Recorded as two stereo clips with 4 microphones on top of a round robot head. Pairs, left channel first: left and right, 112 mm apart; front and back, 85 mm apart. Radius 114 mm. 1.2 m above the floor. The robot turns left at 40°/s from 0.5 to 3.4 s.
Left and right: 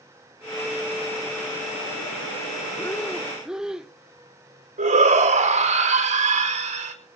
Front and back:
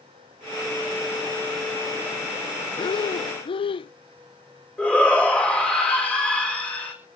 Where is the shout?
80° right, 5 m.